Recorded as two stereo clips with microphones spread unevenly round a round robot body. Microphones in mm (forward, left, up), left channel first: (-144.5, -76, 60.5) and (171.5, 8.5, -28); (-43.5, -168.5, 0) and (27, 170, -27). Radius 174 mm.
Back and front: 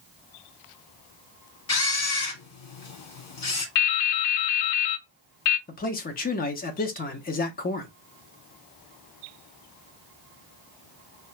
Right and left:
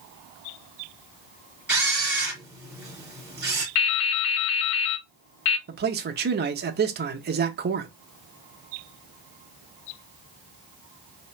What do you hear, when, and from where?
1.7 s a camera shutter: 160° left, 2.5 m
3.8 s dripping: 140° right, 0.6 m
5.7 s a man speaking: 120° left, 0.7 m